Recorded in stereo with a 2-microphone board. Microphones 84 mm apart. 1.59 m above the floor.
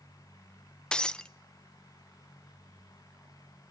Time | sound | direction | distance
0.9 | breaking glass | 10° left (ahead or behind) | 0.7 m